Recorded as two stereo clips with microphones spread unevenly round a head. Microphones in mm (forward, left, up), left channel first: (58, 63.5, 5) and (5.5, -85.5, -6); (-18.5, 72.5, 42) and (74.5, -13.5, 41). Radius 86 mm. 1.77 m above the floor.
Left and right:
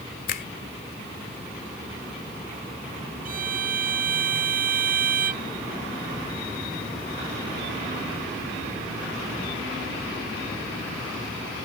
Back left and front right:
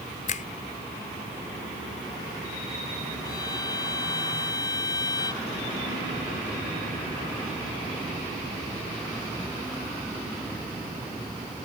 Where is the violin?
155° right.